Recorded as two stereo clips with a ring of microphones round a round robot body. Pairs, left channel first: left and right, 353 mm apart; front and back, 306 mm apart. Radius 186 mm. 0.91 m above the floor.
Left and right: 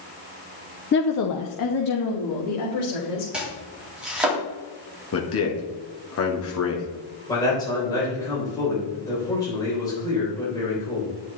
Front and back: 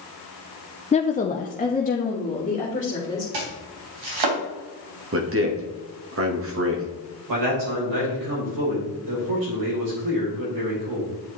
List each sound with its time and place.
0.9 s a woman speaking: 55° left, 0.5 m; by 3.2 s 65° left, 3 m
3.3 s chopping: 175° right, 2.5 m
5.1 s a man speaking: 140° left, 1.5 m
7.3 s a man speaking: 170° left, 3.5 m